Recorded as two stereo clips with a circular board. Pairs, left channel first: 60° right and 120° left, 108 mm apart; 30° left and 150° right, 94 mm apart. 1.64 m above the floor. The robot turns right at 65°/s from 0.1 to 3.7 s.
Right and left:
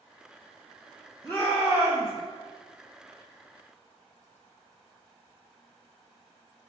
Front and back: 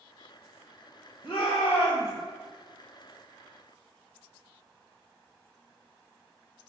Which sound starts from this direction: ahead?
A shout, at 1.2 s.